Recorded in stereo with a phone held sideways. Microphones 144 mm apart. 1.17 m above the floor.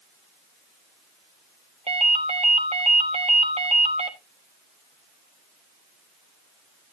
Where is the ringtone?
45° right (ahead or behind), 1.3 m.